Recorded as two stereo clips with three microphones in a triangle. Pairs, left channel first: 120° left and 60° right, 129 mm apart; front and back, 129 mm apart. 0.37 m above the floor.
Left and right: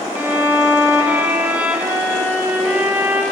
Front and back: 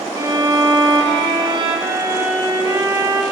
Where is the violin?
130° right, 1.4 m.